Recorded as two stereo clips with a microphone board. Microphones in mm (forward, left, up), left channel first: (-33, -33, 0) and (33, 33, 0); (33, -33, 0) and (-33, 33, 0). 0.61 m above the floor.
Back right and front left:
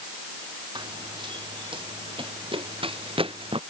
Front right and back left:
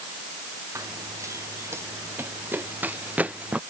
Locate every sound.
0.8 s running footsteps: 80° left; by 3.6 s 60° left